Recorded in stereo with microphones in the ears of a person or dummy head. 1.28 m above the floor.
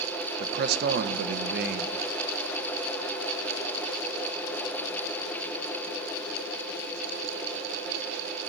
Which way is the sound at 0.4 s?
55° right (ahead or behind).